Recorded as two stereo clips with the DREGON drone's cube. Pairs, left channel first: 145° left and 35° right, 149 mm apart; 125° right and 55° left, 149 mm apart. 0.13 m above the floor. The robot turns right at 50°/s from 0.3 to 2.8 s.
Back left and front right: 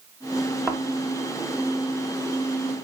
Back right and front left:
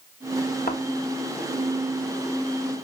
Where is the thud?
130° right, 2.5 m; by 0.8 s 125° right, 2.5 m.